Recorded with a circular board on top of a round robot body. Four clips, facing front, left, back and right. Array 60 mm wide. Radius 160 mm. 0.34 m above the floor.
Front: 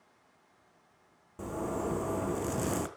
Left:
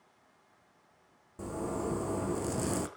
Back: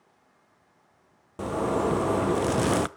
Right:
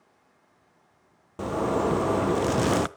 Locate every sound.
1.4 s a zipper: 130° right, 0.7 m